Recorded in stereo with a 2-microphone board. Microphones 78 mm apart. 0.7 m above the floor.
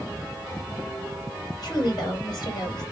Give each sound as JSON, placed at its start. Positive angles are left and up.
{"t": 1.6, "sound": "a woman speaking", "side_deg": 60, "distance_m": 2.5}